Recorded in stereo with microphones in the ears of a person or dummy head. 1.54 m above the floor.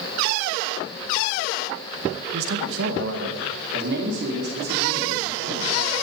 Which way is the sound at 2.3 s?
85° right.